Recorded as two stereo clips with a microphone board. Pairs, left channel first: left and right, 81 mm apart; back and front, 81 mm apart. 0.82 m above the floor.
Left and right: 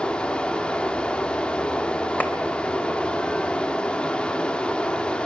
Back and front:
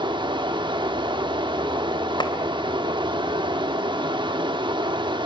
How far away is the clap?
About 3 m.